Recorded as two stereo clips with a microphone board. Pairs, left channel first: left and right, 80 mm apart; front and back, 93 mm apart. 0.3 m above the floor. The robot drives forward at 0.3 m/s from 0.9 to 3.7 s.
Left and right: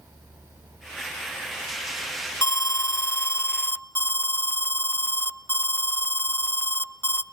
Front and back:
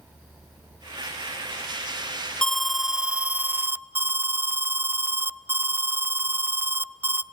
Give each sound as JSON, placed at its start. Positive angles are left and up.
{"t": 2.4, "sound": "an alarm", "azimuth_deg": 80, "distance_m": 0.6}